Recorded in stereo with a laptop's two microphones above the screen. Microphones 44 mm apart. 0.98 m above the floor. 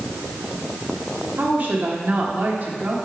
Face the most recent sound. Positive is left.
turn(degrees=-40)  # may be behind; listen again after turning